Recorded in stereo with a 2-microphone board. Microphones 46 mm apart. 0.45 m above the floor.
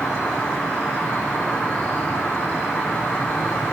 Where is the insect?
25° left (ahead or behind), 2.5 m.